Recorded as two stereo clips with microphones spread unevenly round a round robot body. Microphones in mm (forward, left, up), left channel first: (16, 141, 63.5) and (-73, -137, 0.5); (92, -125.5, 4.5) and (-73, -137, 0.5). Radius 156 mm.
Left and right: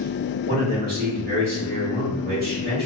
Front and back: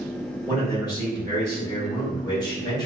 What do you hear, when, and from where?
0.5 s a man speaking: 60° right, 1.6 m